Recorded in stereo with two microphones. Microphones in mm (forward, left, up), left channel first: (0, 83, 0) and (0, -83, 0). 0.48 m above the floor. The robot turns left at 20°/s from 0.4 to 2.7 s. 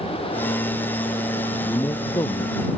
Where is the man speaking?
10° left (ahead or behind); by 2.6 s 30° left (ahead or behind).